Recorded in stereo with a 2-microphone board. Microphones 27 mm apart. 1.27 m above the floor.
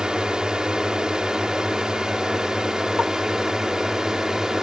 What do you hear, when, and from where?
0.0 s a drone: 30° right (ahead or behind); by 4.6 s 20° right (ahead or behind)